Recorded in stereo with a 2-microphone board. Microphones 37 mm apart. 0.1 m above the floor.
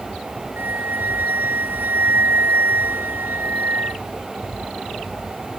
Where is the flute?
70° right (ahead or behind).